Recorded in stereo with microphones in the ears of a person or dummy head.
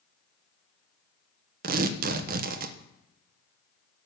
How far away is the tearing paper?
About 1.0 m.